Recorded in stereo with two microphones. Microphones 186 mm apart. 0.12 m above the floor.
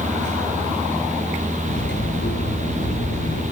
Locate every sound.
1.6 s cutlery clinking: 85° left, 9 m